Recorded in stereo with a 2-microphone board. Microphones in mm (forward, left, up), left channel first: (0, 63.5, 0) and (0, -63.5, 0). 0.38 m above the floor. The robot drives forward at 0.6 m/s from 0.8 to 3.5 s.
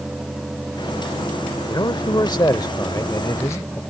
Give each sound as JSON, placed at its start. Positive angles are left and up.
{"t": 1.7, "sound": "a man speaking", "side_deg": 35}